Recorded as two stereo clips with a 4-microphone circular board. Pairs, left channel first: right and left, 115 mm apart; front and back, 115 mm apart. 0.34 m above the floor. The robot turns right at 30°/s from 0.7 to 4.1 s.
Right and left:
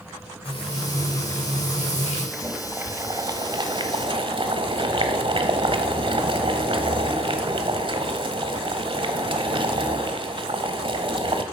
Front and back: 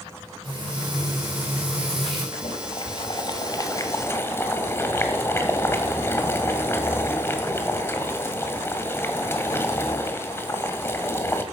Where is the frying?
135° right, 8 m; by 2.2 s 90° right, 8 m.